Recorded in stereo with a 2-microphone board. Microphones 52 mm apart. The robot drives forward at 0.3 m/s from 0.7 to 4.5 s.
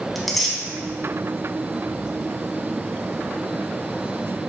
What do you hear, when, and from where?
0.1 s tearing paper: 5° left (ahead or behind), 0.6 m